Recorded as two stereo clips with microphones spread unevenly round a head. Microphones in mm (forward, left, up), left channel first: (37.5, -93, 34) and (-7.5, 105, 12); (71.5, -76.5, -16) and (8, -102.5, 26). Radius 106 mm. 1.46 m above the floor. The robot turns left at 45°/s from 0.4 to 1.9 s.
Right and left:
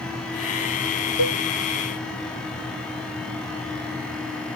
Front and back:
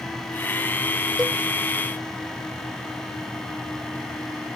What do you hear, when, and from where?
1.2 s a cowbell: 80° right; by 1.4 s 90° right